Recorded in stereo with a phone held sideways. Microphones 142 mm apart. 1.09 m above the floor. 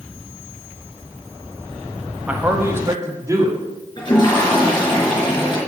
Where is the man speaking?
10° right (ahead or behind), 1.2 m; by 3.6 s 20° right (ahead or behind), 2.5 m.